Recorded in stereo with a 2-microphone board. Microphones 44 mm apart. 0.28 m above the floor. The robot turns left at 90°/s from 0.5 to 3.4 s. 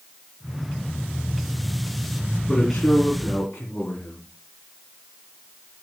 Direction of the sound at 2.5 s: 160° left.